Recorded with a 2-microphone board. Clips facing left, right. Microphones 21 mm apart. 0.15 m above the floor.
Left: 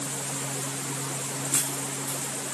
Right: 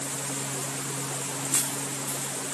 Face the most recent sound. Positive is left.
No sound to turn to.